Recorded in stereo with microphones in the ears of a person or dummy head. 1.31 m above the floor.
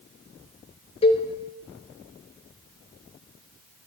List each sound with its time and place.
1.0 s a cowbell: 30° left (ahead or behind), 0.7 m